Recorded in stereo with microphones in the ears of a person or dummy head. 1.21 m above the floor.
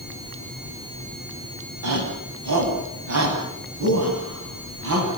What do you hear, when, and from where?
1.8 s a shout: 90° right, 8.5 m; by 5.1 s 85° right, 10.5 m